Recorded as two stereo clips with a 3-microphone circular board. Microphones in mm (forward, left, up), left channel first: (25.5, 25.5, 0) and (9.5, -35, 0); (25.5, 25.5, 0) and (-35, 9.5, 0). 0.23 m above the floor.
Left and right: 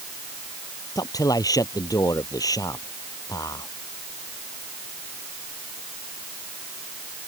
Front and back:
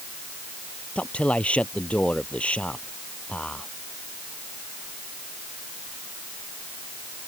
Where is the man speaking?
85° left.